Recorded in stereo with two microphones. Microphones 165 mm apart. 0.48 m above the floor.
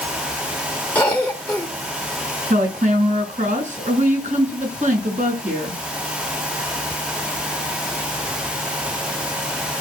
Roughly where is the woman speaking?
Right.